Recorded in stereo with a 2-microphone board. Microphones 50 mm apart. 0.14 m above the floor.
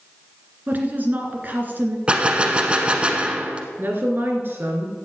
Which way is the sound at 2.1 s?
25° right (ahead or behind).